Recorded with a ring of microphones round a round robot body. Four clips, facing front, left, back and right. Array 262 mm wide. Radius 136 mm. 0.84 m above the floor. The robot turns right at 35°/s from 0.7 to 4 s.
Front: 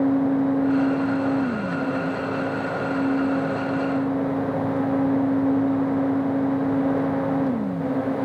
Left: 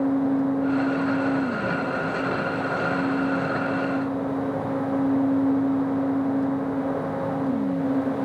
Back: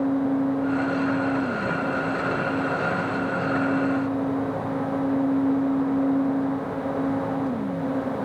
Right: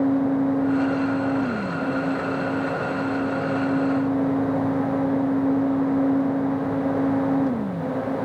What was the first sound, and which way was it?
Only background noise.